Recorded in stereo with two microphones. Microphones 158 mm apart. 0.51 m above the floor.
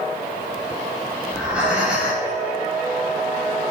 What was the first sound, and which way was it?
Breathing, 5° right (ahead or behind).